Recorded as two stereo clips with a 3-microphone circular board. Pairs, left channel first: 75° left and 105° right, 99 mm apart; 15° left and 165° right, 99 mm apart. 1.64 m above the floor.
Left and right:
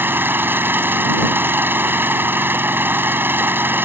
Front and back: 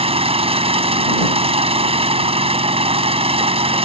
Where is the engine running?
175° right.